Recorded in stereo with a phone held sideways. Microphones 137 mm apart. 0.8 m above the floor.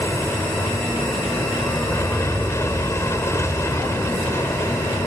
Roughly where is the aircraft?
Centre.